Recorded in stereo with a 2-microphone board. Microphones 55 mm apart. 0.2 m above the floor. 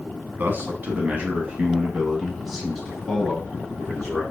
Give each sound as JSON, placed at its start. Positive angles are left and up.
{"t": 0.4, "sound": "a man speaking", "side_deg": -40, "distance_m": 1.3}